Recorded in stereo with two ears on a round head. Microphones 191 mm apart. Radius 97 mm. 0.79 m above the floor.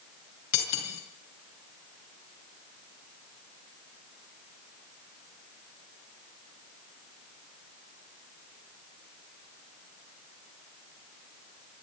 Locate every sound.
0.5 s cutlery clinking: 85° left, 6 m